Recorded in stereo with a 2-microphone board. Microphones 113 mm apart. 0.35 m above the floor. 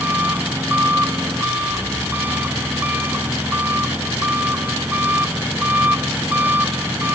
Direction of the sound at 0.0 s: 15° right (ahead or behind).